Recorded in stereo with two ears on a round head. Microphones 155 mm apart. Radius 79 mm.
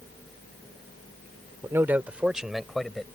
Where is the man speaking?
15° right (ahead or behind); by 3.0 s 5° left (ahead or behind).